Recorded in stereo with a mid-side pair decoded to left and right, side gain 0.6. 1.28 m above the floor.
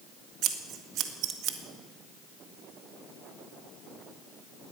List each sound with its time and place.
0.4 s scissors: 60° right, 1.8 m